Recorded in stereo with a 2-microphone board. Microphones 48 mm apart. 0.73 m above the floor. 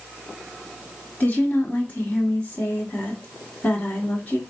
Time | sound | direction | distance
1.2 | a woman speaking | 35° left (ahead or behind) | 1.3 m